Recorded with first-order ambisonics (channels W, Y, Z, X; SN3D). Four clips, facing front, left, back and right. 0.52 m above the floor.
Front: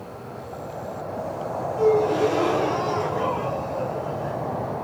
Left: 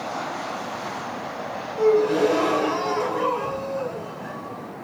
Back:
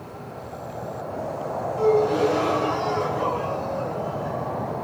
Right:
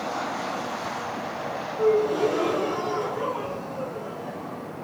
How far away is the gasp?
About 1.3 m.